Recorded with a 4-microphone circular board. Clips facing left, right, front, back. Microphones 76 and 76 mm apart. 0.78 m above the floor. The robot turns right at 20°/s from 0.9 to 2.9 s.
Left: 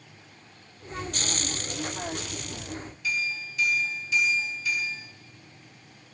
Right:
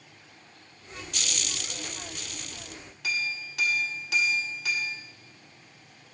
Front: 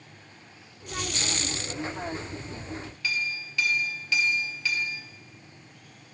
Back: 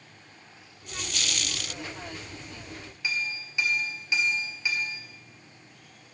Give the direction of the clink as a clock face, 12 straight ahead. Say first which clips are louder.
Left 1 dB, even; 4 o'clock.